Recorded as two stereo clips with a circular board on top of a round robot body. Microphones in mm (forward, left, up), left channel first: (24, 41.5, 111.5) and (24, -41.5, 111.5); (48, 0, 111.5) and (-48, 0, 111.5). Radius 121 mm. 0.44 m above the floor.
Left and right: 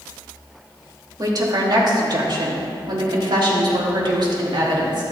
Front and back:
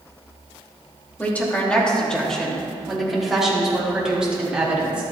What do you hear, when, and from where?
1.2 s a woman speaking: 70° right, 2.5 m; by 5.0 s 100° right, 4 m